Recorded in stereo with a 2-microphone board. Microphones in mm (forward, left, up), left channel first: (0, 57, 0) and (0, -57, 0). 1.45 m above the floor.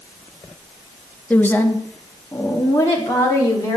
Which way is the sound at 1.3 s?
15° left (ahead or behind).